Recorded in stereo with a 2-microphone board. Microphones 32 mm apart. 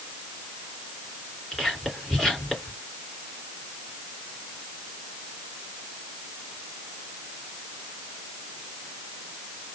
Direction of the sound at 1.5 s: 15° left (ahead or behind).